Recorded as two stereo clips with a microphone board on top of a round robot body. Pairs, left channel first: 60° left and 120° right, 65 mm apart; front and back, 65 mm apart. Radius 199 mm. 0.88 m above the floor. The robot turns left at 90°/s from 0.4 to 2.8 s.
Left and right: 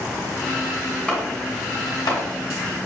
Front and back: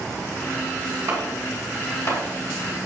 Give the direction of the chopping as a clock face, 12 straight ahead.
8 o'clock.